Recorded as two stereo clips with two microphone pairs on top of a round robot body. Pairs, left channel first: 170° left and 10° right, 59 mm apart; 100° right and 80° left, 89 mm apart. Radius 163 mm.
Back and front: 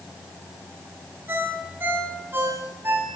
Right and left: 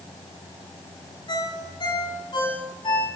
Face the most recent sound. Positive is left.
turn(degrees=-65)